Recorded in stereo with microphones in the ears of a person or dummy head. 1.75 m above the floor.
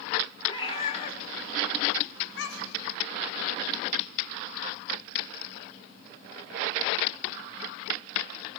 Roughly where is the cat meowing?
Left.